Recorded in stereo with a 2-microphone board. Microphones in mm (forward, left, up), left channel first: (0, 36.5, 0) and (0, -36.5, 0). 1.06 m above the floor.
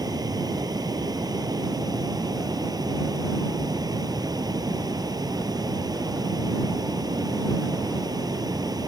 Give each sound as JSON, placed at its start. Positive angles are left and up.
{"t": 0.0, "sound": "running water", "side_deg": -70}